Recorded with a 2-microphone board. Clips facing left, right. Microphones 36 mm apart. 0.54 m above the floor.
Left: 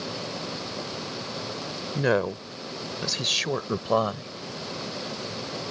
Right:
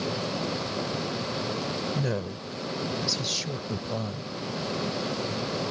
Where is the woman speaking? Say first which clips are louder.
Left 6 dB; 55° left (ahead or behind); by 4.3 s 70° left (ahead or behind).